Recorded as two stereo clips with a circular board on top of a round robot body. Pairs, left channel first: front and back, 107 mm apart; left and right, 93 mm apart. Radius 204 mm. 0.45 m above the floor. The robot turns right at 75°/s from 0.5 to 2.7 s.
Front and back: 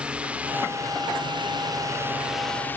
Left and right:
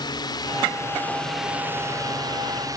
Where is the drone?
105° left; by 2.8 s 65° right.